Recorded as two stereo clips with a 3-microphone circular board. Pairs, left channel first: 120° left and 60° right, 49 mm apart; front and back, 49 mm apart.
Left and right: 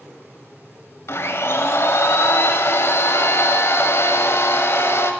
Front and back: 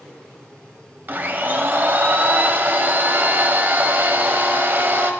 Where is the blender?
140° left, 1.3 m.